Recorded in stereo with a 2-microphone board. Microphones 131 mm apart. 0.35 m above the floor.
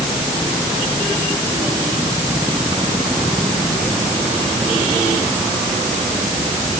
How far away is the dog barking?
I don't hear a dog barking.